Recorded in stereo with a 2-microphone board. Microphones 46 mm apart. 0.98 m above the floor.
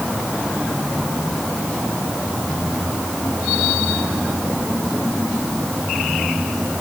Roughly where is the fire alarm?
No fire alarm in this recording.